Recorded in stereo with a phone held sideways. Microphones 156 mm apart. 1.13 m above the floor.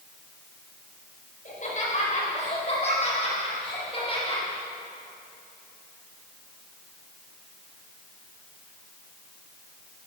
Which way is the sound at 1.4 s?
55° left (ahead or behind).